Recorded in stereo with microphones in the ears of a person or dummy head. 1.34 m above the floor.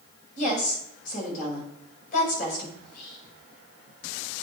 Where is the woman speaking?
45° left (ahead or behind), 5.5 m.